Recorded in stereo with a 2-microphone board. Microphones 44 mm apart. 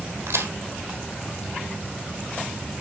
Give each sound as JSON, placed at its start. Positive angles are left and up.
{"t": 0.3, "sound": "a crack", "side_deg": -85, "distance_m": 3.0}